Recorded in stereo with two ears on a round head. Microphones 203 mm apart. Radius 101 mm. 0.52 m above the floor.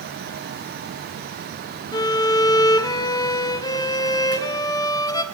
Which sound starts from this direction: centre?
A violin, at 1.9 s.